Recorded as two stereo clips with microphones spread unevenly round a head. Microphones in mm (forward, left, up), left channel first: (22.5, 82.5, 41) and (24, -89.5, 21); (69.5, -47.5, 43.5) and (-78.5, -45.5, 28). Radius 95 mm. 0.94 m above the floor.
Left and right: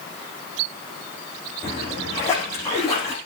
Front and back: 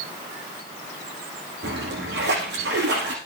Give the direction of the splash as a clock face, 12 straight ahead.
6 o'clock.